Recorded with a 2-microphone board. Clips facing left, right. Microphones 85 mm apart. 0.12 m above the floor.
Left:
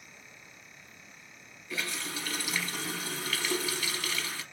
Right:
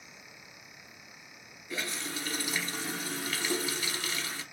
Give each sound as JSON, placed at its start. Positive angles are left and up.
{"t": 1.7, "sound": "a running tap", "side_deg": -25, "distance_m": 1.4}